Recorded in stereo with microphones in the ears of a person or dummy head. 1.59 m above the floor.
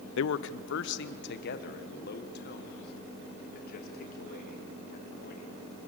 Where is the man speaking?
75° left (ahead or behind), 0.5 m; by 5.5 s 55° left (ahead or behind), 3.5 m.